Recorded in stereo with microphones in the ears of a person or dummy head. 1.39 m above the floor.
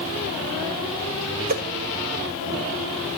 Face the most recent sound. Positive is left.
turn(degrees=-45)  # may be behind; listen again after turning